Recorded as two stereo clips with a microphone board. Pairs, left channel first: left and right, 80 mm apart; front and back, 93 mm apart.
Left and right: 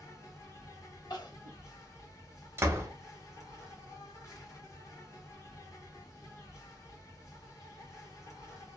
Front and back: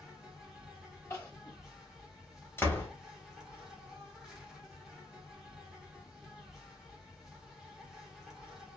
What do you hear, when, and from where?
0.0 s an insect: 95° left, 1.2 m
1.1 s crying: 60° left, 1.4 m
2.6 s a door slam: 50° right, 1.0 m